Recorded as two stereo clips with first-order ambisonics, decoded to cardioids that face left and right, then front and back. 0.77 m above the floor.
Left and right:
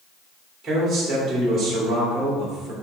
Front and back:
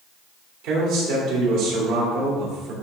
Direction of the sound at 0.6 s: 170° right.